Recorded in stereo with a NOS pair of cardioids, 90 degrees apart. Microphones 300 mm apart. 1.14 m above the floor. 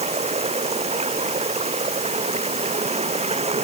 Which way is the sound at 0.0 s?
20° right.